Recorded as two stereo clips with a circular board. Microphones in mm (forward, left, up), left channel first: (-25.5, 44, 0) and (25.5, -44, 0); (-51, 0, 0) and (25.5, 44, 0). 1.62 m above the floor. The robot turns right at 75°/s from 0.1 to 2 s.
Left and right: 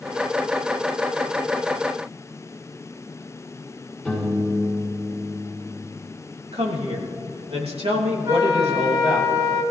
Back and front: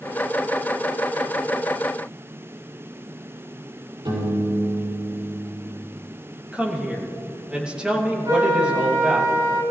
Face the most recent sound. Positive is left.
turn(degrees=0)